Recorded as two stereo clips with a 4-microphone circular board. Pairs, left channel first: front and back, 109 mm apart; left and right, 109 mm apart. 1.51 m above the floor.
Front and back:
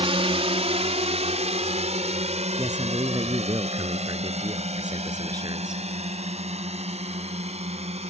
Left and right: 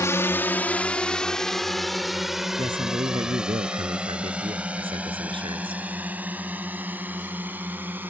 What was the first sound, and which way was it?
A drone, 155° left.